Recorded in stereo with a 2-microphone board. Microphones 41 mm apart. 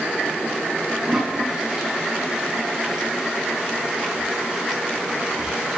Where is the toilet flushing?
20° right (ahead or behind), 5 m.